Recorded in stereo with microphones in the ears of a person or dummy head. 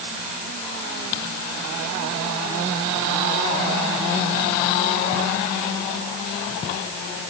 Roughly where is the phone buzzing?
I don't hear a phone buzzing.